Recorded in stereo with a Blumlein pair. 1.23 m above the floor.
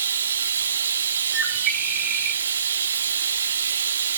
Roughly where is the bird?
Ahead right.